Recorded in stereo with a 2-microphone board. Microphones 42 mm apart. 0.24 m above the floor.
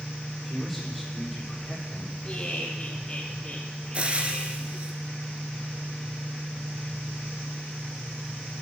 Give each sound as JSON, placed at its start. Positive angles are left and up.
{"t": 0.5, "sound": "a man speaking", "side_deg": 0, "distance_m": 8.0}
{"t": 2.2, "sound": "laughter", "side_deg": 20, "distance_m": 5.5}
{"t": 3.9, "sound": "frying", "side_deg": -30, "distance_m": 1.5}